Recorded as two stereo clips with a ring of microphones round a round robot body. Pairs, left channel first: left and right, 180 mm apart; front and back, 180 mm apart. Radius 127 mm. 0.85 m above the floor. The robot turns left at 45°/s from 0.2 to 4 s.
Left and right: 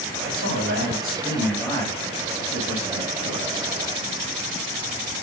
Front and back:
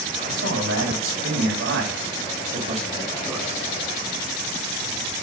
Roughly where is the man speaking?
Behind right.